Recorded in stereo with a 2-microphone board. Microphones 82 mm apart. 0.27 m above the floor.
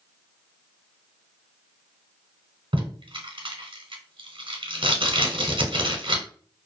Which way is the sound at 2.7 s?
75° right (ahead or behind).